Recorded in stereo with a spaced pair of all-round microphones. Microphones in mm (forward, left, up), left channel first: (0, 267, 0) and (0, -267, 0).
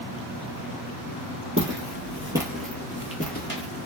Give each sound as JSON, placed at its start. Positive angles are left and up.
{"t": 1.6, "sound": "footsteps", "side_deg": -25, "distance_m": 1.3}